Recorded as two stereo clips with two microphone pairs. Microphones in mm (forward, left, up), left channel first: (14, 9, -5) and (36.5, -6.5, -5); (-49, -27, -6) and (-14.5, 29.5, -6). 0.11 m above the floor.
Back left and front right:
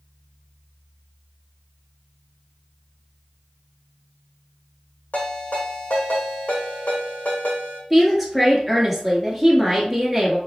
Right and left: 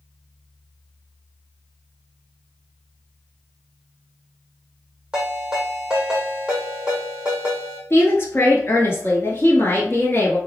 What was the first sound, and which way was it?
A ringtone, 135° left.